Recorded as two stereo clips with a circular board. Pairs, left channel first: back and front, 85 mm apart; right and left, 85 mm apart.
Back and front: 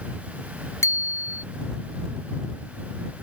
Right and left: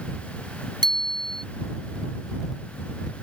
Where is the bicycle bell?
120° left.